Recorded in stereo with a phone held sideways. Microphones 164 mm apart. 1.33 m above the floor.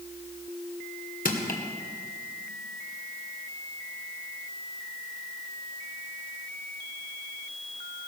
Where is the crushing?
55° left (ahead or behind), 2.0 m.